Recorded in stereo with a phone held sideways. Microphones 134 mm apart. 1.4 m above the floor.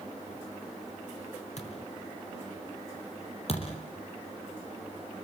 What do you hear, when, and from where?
1.6 s a thud: 55° left (ahead or behind), 5 m
3.5 s a thud: 50° left (ahead or behind), 5 m